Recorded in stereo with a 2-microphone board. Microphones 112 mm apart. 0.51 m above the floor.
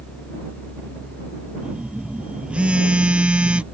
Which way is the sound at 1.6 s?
10° right (ahead or behind).